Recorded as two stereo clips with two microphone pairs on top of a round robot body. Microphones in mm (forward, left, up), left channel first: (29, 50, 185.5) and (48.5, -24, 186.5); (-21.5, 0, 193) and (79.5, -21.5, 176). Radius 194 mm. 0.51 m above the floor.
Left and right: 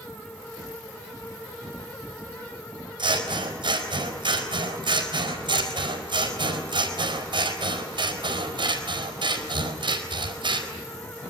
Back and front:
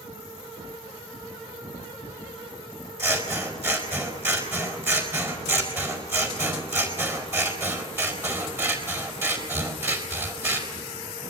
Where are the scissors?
75° right, 5 m.